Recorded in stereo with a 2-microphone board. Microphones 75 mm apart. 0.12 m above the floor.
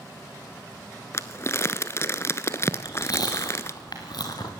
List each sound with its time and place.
1.1 s crumpling: 35° left (ahead or behind), 0.9 m
2.7 s chewing: 60° left (ahead or behind), 3 m